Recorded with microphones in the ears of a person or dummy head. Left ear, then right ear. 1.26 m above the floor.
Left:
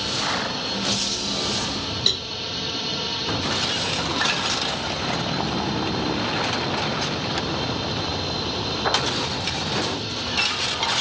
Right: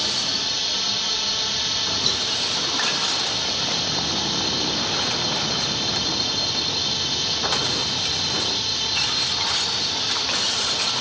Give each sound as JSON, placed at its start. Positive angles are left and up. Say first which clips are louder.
{"t": 0.0, "sound": "a drone", "louder": "right 2 dB", "side_deg": -45}
{"t": 2.1, "sound": "a cowbell", "louder": "left 4 dB", "side_deg": 20}